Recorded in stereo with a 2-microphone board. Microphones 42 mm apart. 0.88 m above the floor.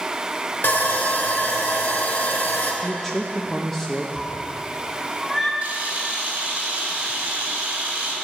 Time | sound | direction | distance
0.6 | sawing | 55° left (ahead or behind) | 1.6 m
2.8 | a man speaking | 10° left (ahead or behind) | 0.6 m
4.2 | a cat meowing | 10° left (ahead or behind) | 1.7 m
5.6 | a camera shutter | 30° right (ahead or behind) | 2.5 m